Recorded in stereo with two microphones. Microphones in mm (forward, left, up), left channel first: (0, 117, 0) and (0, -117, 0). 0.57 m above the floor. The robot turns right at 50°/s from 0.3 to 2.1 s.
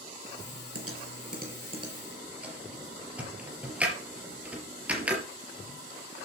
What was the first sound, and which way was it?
Typing on a keyboard, 75° right (ahead or behind).